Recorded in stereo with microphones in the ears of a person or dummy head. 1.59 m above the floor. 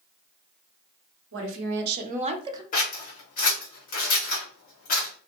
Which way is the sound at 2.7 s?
50° left (ahead or behind).